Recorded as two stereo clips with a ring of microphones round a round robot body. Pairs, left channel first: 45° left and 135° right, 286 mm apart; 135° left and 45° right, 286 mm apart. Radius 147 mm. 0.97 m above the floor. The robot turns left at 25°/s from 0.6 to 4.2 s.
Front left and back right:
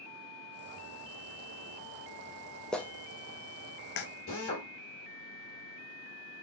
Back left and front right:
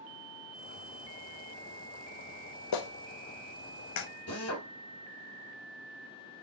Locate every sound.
2.7 s a clap: 135° left, 0.6 m; by 4.1 s 100° left, 0.6 m
4.3 s a drill: 95° left, 1.9 m